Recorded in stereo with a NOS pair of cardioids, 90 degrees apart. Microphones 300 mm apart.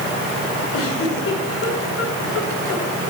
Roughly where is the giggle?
Ahead left.